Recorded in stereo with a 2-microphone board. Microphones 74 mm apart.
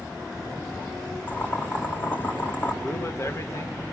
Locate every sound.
1.3 s boiling: 25° left (ahead or behind), 3.5 m
2.8 s a man speaking: 40° left (ahead or behind), 1.9 m